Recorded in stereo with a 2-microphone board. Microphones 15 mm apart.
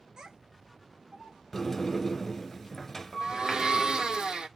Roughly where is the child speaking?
Right.